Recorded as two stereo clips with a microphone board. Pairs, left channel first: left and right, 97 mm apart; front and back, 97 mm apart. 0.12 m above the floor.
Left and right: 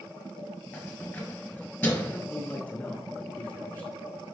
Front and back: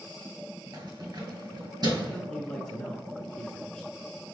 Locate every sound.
0.7 s keys jangling: 160° left, 1.8 m
2.1 s a man speaking: 65° left, 1.4 m